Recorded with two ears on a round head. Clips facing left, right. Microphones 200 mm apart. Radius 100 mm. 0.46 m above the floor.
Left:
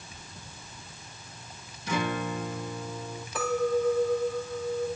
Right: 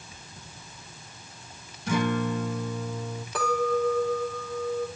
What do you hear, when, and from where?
1.9 s a guitar: 45° right (ahead or behind), 3.5 m
3.4 s a clink: 60° right (ahead or behind), 9 m